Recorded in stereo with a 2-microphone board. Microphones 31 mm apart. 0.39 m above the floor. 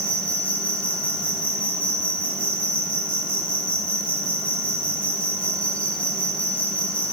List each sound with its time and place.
0.0 s an insect: 40° left (ahead or behind), 3 m